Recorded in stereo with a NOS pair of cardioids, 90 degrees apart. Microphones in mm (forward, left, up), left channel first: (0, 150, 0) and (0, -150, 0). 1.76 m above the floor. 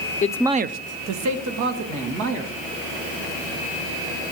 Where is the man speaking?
25° left, 0.6 m; by 2.5 s 75° right, 3 m.